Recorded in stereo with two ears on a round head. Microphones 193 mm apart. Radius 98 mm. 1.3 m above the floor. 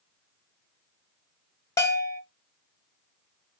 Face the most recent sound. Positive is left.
turn(degrees=15)  # may be behind; listen again after turning